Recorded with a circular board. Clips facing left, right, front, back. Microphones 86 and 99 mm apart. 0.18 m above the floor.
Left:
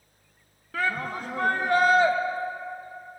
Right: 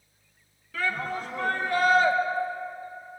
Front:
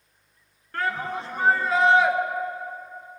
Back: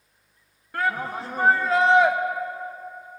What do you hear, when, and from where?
0.7 s a shout: 105° left, 1.5 m; by 2.1 s 85° left, 2.5 m